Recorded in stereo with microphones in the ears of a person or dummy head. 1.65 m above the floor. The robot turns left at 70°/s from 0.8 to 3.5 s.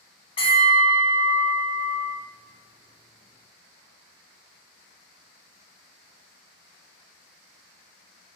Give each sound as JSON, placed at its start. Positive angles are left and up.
{"t": 0.4, "sound": "a bell", "azimuth_deg": 155, "distance_m": 0.6}